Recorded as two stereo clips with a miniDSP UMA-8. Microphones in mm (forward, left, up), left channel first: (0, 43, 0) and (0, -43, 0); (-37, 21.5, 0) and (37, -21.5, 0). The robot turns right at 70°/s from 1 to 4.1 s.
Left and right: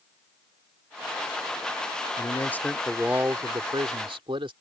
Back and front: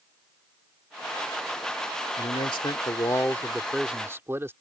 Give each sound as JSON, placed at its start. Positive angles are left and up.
{"t": 2.2, "sound": "a man speaking", "azimuth_deg": 135}